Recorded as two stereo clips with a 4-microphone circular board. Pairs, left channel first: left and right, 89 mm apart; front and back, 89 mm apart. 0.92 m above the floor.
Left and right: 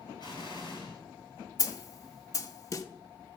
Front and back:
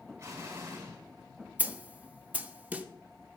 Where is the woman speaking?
No woman speaking in this recording.